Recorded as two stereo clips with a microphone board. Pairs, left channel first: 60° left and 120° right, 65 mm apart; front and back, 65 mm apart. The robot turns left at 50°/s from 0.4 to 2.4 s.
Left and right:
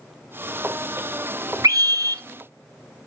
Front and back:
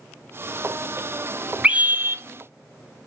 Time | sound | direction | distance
1.6 | a scream | 110° right | 0.6 m